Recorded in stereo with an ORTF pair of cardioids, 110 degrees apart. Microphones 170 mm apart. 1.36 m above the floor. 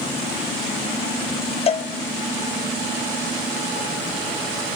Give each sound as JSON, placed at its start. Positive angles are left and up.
{"t": 1.7, "sound": "a cowbell", "azimuth_deg": 40, "distance_m": 1.0}